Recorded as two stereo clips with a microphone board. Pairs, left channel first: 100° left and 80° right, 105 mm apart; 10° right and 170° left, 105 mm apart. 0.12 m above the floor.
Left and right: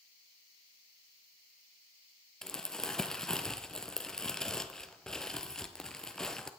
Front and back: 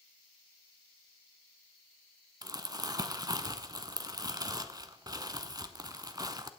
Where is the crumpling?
Straight behind, 0.8 m.